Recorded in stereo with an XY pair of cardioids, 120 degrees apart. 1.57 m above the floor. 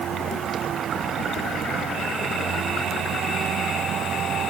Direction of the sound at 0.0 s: 50° right.